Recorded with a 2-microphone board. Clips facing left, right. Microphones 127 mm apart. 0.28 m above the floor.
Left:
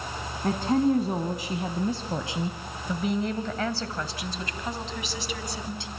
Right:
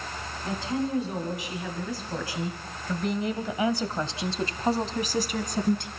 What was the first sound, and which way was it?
A woman speaking, 55° left (ahead or behind).